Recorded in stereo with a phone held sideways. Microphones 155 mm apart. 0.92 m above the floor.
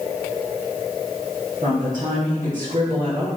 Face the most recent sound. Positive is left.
turn(degrees=-60)  # may be behind; listen again after turning